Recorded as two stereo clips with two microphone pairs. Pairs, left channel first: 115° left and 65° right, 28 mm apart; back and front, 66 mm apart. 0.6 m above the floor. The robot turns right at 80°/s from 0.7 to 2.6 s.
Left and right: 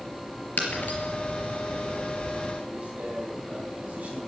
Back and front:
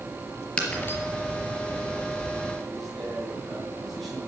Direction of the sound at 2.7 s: 85° right.